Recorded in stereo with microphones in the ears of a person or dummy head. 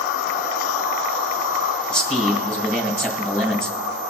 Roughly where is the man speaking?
Centre.